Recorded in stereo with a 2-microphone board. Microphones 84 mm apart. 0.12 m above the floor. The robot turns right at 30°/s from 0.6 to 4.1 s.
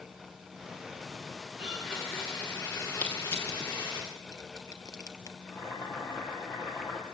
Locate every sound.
1.6 s a blender: 10° right, 9.5 m; by 4.0 s 60° left, 9.5 m
3.0 s crushing: 20° left (ahead or behind), 2 m; by 5.4 s 45° left (ahead or behind), 2 m
5.5 s boiling: 45° left (ahead or behind), 3 m